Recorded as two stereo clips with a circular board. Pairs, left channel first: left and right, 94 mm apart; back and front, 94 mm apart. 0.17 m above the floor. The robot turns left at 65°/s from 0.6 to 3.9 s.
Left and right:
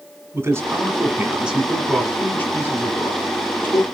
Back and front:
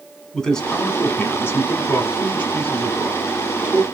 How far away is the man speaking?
About 1.1 m.